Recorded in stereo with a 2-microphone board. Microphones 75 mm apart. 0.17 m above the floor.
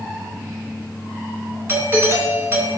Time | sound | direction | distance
1.7 | a doorbell | 30° right (ahead or behind) | 2 m